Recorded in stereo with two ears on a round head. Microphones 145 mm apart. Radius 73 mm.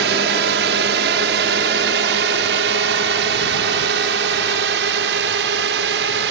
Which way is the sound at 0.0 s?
75° right (ahead or behind).